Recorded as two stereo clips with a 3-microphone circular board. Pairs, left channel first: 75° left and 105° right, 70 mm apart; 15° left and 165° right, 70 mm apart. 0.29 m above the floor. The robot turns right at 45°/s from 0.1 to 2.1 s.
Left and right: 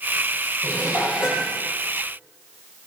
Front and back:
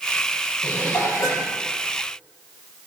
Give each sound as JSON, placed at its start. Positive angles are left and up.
{"t": 0.6, "sound": "dishes clattering", "azimuth_deg": -55, "distance_m": 6.5}